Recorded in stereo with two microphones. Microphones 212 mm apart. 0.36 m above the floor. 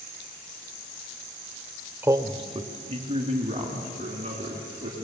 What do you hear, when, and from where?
2.0 s a man speaking: 10° right (ahead or behind), 1.1 m; by 5.1 s 30° right (ahead or behind), 4.5 m